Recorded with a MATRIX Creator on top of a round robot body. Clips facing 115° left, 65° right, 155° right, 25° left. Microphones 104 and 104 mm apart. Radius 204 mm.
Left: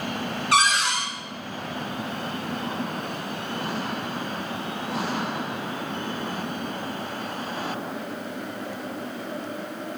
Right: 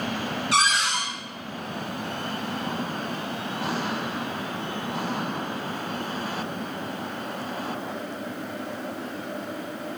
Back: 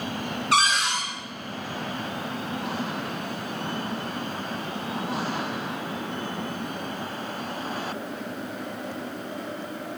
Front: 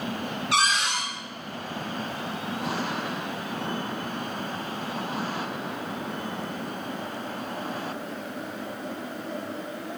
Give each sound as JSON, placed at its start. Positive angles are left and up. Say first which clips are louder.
{"t": 0.5, "sound": "a cupboard door", "louder": "left 2 dB, back 2 dB", "azimuth_deg": 155, "distance_m": 0.5}